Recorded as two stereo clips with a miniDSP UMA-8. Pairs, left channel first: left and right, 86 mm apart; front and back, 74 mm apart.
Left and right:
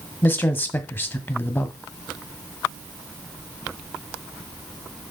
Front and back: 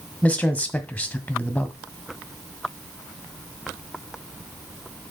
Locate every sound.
0.2 s a man speaking: 50° left, 1.5 m